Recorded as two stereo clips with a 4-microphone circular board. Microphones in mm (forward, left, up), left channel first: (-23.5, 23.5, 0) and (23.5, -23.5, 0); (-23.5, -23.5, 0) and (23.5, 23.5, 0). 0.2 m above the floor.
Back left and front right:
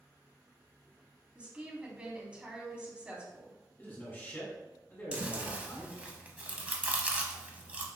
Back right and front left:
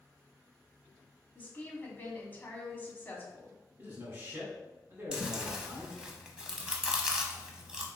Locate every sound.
1.4 s a woman speaking: 100° right, 1.3 m
3.8 s a man speaking: 90° left, 1.9 m
5.1 s chewing: 20° right, 0.7 m